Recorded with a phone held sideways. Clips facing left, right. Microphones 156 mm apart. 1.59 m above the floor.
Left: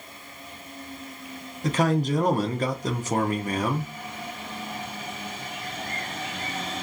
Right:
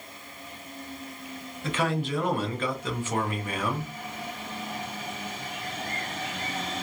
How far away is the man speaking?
About 0.6 m.